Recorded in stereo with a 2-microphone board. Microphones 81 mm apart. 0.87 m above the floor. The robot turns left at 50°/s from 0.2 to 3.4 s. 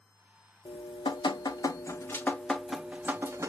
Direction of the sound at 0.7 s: 100° left.